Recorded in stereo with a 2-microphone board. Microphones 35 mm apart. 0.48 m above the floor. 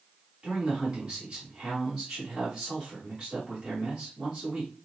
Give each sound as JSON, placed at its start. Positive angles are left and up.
{"t": 0.4, "sound": "a man speaking", "side_deg": -20, "distance_m": 2.5}